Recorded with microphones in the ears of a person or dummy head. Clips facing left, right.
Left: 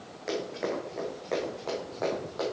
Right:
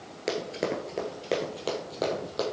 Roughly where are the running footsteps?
Right.